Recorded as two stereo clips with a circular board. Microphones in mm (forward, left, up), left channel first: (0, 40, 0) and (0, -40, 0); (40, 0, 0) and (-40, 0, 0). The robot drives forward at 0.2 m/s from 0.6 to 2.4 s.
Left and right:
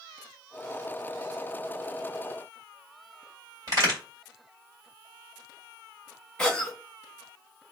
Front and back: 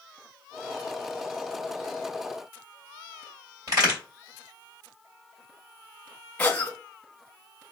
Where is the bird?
I don't hear a bird.